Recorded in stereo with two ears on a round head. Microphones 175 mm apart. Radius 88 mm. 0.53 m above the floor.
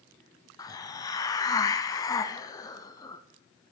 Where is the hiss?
20° left (ahead or behind), 0.6 m.